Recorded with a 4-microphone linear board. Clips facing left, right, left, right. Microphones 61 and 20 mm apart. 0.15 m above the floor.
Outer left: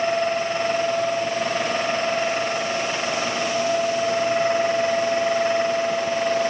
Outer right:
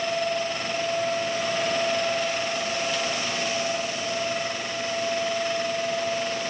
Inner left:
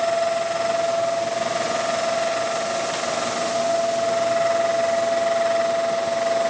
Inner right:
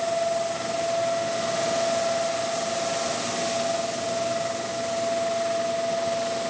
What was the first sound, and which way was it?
Only background noise.